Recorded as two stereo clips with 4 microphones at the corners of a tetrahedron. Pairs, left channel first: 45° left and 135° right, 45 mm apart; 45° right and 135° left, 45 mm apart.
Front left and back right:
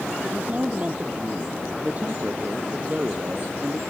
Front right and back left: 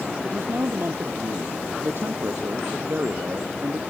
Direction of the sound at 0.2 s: 165° left.